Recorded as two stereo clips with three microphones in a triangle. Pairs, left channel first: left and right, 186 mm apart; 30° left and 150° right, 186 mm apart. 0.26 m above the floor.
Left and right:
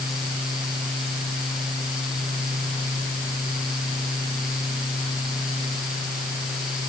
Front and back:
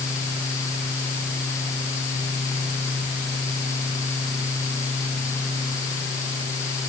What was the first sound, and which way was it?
Only background noise.